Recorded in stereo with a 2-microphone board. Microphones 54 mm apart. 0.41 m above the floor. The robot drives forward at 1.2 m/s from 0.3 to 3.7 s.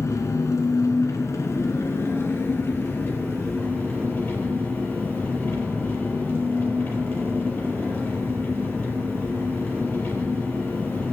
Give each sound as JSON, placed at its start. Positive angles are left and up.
{"t": 0.0, "sound": "an engine running", "side_deg": 75, "distance_m": 2.0}